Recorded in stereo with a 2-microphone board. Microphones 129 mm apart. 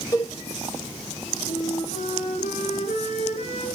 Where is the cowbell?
25° left (ahead or behind), 3 m.